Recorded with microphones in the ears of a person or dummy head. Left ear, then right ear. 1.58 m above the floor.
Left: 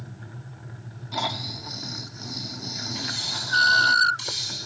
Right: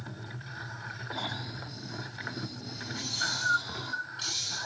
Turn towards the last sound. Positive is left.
turn(degrees=35)  # may be behind; listen again after turning